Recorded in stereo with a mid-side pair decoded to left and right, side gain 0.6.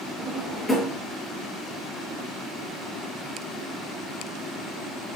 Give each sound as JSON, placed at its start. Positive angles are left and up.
{"t": 0.2, "sound": "a drawer", "azimuth_deg": 5, "distance_m": 7.5}